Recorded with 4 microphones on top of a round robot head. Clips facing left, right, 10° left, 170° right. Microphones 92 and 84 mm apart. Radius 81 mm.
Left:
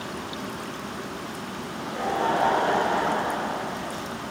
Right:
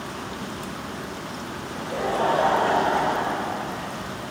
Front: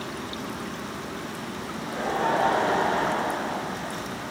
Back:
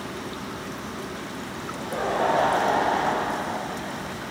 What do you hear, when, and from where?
1.6 s laughter: 95° right, 3.5 m; by 3.9 s 115° right, 4.5 m